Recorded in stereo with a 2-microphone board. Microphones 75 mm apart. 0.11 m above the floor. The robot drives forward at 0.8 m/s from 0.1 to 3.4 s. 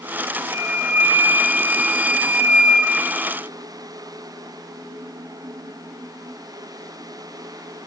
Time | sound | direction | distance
0.5 | a flute | 30° right (ahead or behind) | 1.2 m